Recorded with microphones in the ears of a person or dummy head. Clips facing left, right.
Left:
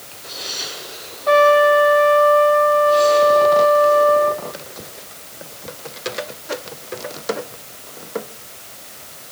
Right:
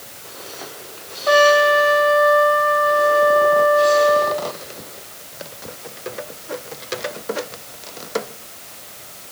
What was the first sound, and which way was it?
A trumpet, 15° right (ahead or behind).